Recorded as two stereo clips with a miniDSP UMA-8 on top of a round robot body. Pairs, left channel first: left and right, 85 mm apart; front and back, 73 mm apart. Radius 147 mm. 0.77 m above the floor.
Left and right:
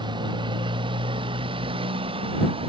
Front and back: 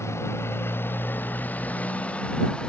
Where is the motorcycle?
55° right; by 2.7 s 80° right.